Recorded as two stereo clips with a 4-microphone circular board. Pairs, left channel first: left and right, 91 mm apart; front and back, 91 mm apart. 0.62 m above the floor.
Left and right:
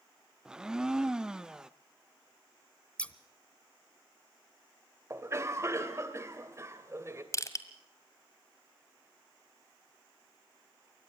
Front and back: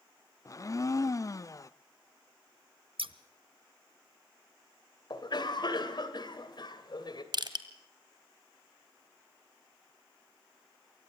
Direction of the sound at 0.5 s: 15° right.